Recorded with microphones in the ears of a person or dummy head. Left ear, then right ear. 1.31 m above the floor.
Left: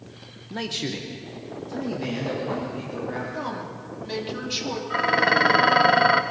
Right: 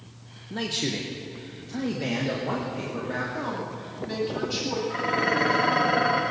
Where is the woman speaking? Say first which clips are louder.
Even; 25° left (ahead or behind), 2.5 m.